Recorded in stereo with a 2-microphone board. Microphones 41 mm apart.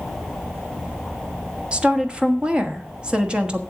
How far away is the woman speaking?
About 1.3 m.